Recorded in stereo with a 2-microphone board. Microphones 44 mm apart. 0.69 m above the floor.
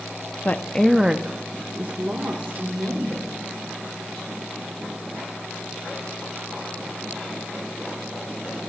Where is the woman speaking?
40° left (ahead or behind), 0.6 m; by 3.4 s 60° right (ahead or behind), 2.5 m.